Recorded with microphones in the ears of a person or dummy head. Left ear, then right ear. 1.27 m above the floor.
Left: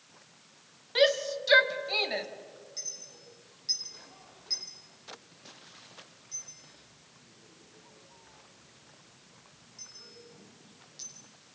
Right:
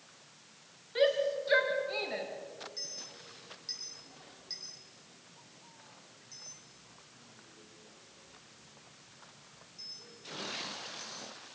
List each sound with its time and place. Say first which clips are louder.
0.9 s a shout: left 3 dB; 35° left (ahead or behind), 2 m
2.8 s a clink: left 3 dB; 5° left (ahead or behind), 7 m